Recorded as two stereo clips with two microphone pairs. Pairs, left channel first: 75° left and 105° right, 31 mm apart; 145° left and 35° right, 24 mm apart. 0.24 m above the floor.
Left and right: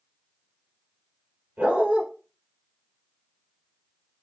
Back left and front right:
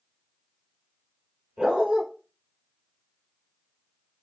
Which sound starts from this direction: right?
A dog barking, at 1.6 s.